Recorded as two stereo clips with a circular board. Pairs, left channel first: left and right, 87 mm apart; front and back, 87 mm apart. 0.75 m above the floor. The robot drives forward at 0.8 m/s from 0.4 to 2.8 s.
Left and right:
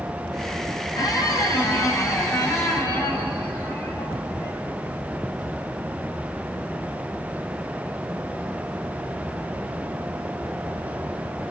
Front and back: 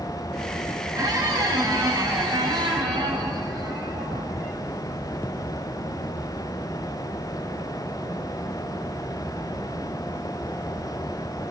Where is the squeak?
135° left, 3 m; by 4.6 s 150° left, 4 m.